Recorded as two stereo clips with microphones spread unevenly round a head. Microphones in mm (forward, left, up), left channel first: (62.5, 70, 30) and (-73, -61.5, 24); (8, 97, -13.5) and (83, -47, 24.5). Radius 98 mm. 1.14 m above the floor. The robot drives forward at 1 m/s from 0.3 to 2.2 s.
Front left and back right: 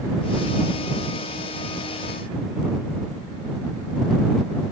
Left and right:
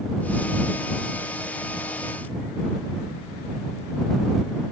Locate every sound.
Only background noise.